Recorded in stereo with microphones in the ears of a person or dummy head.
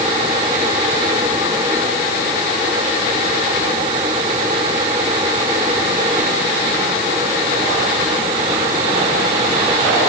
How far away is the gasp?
No gasp in this recording.